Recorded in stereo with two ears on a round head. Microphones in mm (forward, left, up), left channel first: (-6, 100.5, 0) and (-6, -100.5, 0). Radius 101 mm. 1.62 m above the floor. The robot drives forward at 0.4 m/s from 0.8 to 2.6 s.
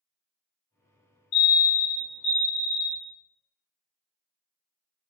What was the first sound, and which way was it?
A fire alarm, 65° left (ahead or behind).